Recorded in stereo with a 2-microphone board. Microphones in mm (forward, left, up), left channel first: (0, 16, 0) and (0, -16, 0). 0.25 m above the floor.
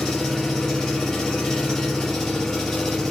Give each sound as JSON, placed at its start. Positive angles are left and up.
{"t": 0.0, "sound": "an engine running", "side_deg": 20, "distance_m": 2.5}